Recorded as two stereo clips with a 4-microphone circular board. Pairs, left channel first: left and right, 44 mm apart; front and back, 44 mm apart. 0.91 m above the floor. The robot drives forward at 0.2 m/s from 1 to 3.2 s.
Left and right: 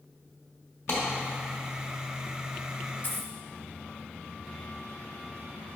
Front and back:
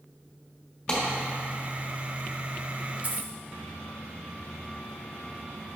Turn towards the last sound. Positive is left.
turn(degrees=130)